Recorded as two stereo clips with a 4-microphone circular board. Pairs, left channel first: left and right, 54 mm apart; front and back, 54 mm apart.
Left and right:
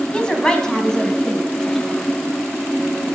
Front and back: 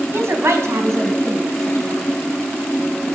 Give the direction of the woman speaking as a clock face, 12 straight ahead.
7 o'clock.